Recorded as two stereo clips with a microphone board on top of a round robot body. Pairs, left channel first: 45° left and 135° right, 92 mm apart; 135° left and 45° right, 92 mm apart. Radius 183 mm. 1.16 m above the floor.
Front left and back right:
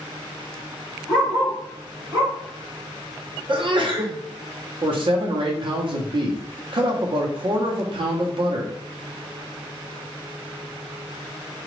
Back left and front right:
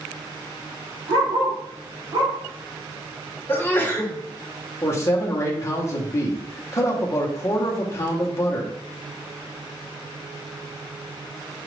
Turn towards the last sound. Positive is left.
turn(degrees=-165)